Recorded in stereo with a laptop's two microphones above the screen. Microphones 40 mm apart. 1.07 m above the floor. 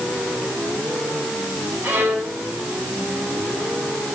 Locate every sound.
1.8 s a violin: 50° right (ahead or behind), 9 m